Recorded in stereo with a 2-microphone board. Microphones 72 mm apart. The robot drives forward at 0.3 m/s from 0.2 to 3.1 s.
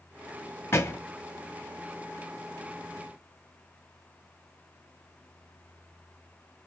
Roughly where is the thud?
Left.